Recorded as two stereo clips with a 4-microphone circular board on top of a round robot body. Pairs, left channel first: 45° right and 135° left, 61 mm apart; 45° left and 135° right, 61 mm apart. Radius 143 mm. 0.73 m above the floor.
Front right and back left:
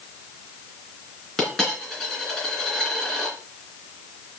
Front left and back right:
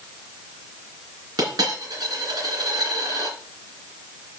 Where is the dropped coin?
125° right, 2.5 m.